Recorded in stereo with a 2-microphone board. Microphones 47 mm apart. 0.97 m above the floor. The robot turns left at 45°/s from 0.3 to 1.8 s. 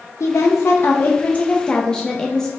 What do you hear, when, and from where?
0.2 s a woman speaking: 80° left, 0.6 m; by 2.5 s 15° left, 0.6 m